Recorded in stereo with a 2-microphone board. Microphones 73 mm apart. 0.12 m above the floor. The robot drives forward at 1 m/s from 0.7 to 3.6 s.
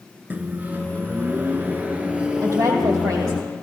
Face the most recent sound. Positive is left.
turn(degrees=-65)  # may be behind; listen again after turning